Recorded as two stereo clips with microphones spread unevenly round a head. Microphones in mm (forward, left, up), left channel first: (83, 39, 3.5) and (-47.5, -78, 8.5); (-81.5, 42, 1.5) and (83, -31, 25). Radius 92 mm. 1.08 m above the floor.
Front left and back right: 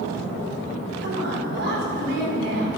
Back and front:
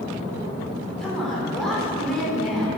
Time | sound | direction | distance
1.0 | a woman speaking | 115° right | 4 m